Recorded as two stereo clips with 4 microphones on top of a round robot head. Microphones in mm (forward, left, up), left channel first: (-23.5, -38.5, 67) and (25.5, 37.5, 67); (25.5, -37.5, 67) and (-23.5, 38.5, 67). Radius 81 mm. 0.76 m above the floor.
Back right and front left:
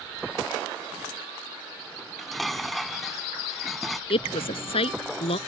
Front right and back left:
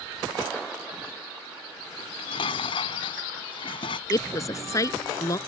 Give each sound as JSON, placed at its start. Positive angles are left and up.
{"t": 2.0, "sound": "dishes clattering", "azimuth_deg": -30}
{"t": 4.1, "sound": "a woman speaking", "azimuth_deg": -110}